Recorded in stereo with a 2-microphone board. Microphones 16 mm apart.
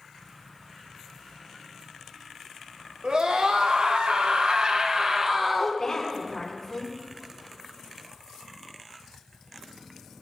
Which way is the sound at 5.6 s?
30° left (ahead or behind).